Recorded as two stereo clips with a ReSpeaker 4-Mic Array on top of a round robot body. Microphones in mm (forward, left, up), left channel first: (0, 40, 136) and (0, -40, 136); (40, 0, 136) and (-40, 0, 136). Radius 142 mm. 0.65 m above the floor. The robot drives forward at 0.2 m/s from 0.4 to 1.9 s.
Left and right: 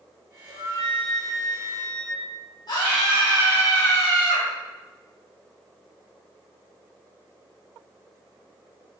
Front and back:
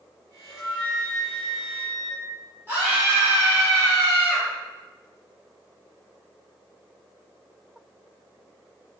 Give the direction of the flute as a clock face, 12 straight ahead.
9 o'clock.